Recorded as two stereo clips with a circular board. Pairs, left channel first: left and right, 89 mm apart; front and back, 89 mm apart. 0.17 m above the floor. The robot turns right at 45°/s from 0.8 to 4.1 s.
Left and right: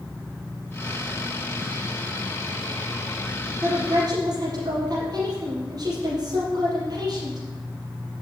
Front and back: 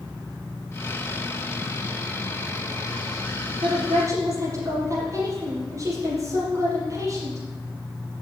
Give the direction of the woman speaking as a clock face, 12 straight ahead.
5 o'clock.